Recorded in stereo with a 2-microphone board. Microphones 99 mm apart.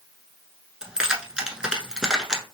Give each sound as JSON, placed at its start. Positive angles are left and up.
{"t": 0.8, "sound": "keys jangling", "side_deg": -5, "distance_m": 0.8}